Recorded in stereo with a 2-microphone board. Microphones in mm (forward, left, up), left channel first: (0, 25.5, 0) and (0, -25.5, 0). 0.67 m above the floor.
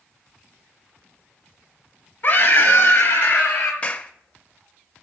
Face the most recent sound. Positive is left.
turn(degrees=30)  # may be behind; listen again after turning